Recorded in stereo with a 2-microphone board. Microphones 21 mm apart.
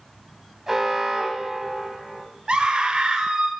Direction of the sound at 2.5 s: 50° right (ahead or behind).